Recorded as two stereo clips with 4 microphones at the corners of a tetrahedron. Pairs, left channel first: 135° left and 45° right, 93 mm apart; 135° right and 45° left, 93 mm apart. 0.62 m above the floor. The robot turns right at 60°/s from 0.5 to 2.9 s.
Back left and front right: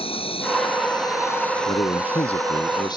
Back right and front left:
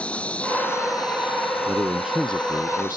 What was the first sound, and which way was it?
An insect, 150° left.